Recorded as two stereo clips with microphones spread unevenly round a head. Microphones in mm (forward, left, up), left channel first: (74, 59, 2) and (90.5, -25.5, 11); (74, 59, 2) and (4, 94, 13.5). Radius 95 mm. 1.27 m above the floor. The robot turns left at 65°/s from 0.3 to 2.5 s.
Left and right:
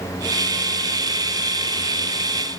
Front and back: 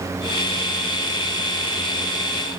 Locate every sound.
Only background noise.